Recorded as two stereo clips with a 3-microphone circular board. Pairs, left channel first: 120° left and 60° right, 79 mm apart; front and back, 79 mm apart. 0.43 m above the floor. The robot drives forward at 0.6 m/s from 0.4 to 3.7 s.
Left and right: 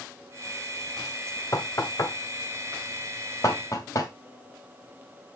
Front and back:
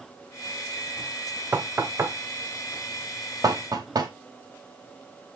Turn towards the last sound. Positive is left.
turn(degrees=155)